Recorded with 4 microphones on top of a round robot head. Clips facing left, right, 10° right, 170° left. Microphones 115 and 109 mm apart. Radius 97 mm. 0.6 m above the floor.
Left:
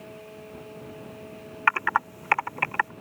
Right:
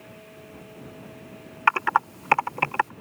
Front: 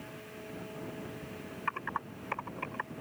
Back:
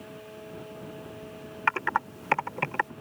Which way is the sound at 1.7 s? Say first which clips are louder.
Right 3 dB, back 10 dB; 155° right.